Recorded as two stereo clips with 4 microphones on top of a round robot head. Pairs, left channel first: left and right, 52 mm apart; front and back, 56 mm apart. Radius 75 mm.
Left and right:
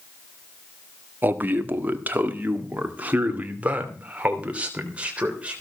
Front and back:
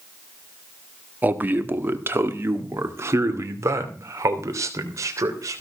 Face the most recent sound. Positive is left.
turn(degrees=-160)